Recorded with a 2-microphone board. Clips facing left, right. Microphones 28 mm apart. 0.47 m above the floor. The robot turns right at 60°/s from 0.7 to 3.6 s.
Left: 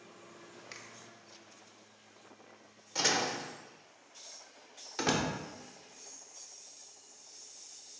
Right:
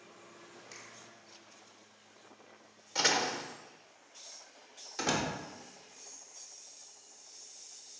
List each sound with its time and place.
0.7 s a finger snap: 35° left (ahead or behind), 0.7 m
3.0 s a door slam: 10° right (ahead or behind), 0.8 m; by 3.4 s 30° right (ahead or behind), 0.8 m
5.0 s a door slam: 15° left (ahead or behind), 0.7 m